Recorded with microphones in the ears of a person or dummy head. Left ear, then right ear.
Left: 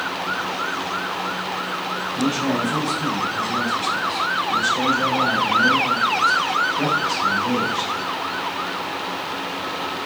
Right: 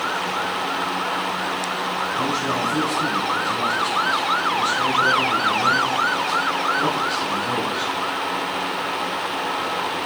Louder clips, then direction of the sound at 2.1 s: Left 2 dB; 50° left (ahead or behind).